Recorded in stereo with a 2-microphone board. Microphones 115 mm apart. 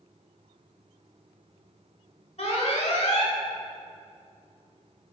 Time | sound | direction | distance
2.4 | an alarm | 70° left (ahead or behind) | 1.6 m